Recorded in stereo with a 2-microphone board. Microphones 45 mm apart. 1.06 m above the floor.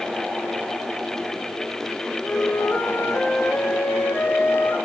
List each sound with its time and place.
2.2 s a flute: 80° left, 3 m